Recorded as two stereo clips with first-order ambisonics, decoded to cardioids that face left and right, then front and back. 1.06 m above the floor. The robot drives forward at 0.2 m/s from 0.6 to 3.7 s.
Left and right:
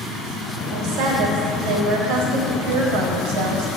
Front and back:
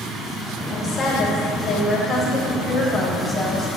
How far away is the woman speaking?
About 1.3 m.